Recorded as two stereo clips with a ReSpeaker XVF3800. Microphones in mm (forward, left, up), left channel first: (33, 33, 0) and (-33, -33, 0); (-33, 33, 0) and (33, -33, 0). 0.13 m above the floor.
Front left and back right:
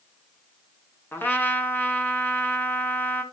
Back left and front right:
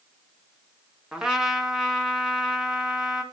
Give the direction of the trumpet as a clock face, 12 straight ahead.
11 o'clock.